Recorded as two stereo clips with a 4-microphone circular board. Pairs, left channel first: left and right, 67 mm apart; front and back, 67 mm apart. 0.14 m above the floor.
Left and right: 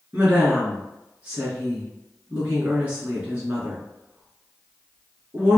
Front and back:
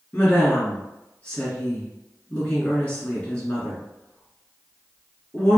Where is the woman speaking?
50° right, 1.8 m.